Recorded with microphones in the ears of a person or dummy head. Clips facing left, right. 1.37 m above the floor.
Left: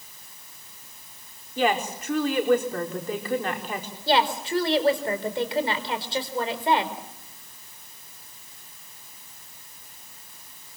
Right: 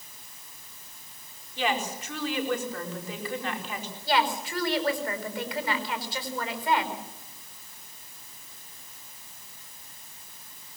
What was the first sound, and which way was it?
A woman speaking, 45° left (ahead or behind).